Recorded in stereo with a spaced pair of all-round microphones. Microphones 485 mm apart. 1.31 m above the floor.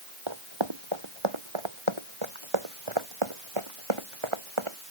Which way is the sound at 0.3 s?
70° right (ahead or behind).